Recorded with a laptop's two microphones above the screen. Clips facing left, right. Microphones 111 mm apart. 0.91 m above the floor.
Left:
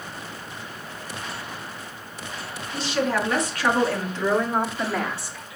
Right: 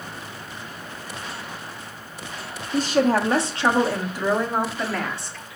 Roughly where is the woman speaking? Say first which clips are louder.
Right 5 dB; right.